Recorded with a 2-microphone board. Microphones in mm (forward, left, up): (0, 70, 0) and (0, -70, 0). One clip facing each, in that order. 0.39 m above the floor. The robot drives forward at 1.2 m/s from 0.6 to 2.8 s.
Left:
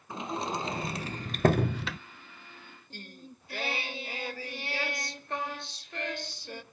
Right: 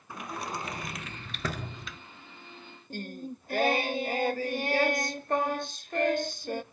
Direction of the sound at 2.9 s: 50° right (ahead or behind).